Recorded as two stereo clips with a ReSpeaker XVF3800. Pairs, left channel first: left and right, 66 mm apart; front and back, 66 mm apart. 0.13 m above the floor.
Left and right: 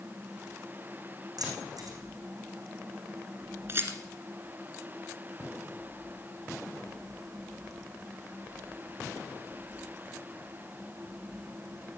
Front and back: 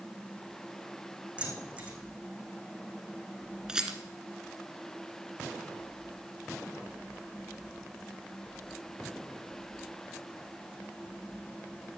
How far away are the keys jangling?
About 4.5 m.